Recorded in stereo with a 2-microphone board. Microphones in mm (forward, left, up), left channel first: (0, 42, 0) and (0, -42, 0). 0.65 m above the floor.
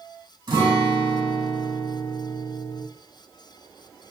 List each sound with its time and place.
0.5 s a guitar: 65° right (ahead or behind), 1.7 m